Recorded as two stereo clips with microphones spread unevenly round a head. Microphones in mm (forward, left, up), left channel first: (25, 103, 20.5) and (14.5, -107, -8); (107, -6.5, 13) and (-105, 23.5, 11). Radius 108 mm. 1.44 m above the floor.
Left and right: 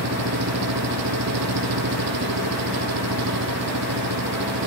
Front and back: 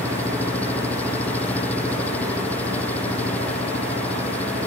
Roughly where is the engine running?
Right.